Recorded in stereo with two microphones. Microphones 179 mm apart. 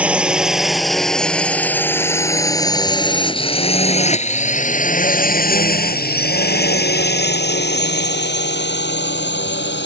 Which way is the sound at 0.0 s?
5° right (ahead or behind).